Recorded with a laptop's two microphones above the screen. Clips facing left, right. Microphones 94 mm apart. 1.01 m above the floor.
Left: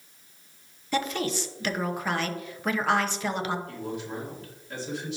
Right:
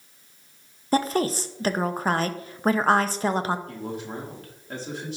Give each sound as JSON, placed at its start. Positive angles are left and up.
{"t": 0.9, "sound": "a woman speaking", "side_deg": -40, "distance_m": 0.8}
{"t": 3.7, "sound": "a man speaking", "side_deg": -50, "distance_m": 2.0}